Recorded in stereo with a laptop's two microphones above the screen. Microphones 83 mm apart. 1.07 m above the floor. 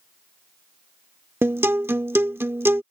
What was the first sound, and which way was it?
A guitar, 30° right (ahead or behind).